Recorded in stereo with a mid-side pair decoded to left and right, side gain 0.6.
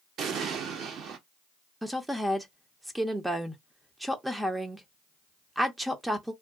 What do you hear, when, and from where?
0.2 s an explosion: 55° right, 0.8 m
1.8 s a woman speaking: 10° right, 0.5 m